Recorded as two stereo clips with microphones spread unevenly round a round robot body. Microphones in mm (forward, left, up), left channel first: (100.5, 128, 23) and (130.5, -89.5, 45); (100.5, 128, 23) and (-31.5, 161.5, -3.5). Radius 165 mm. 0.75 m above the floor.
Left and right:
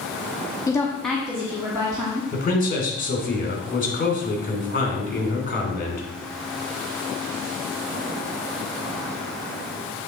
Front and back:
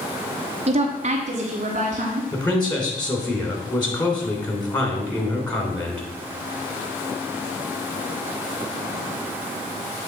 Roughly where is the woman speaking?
Behind.